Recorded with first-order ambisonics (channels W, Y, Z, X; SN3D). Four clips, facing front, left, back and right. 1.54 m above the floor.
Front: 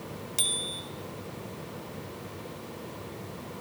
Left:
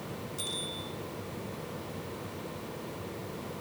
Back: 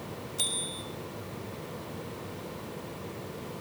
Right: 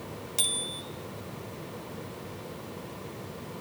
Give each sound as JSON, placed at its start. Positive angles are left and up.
{"t": 0.4, "sound": "a bicycle bell", "azimuth_deg": -45, "distance_m": 5.0}